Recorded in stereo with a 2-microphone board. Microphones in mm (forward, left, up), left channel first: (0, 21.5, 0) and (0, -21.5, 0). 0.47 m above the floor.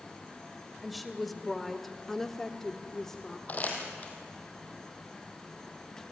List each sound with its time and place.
0.8 s a woman speaking: centre (ahead or behind), 2.5 m; by 3.4 s 10° left (ahead or behind), 1.5 m
3.5 s crumpling: 35° left (ahead or behind), 4 m